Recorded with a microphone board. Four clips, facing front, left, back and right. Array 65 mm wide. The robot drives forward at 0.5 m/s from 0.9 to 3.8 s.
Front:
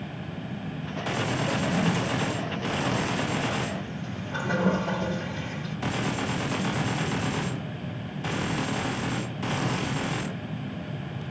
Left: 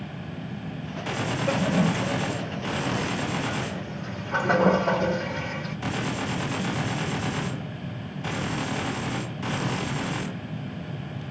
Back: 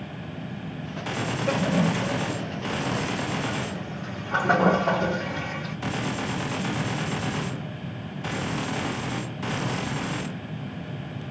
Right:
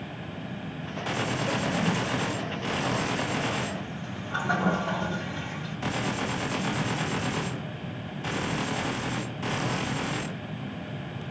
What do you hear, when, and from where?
1.5 s a toilet flushing: 145° left, 1.3 m; by 5.8 s 165° left, 2 m